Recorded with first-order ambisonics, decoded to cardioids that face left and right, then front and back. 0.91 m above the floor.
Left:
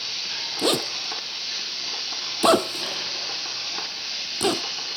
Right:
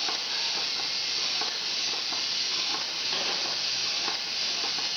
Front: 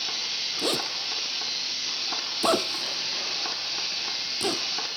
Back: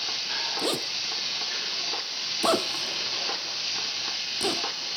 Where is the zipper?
90° left.